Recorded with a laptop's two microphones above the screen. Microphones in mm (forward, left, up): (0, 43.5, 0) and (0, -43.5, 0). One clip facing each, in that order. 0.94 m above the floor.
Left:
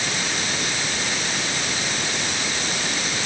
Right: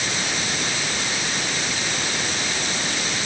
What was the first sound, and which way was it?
Only background noise.